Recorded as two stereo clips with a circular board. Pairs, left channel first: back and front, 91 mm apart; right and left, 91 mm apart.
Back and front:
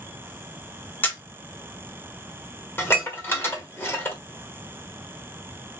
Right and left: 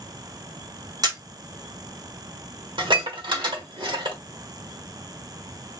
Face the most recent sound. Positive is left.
turn(degrees=115)